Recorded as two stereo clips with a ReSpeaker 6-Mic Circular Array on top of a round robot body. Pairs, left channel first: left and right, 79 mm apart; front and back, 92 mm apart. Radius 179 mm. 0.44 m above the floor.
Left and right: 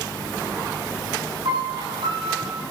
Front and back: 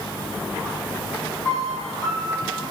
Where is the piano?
75° right, 6.5 m.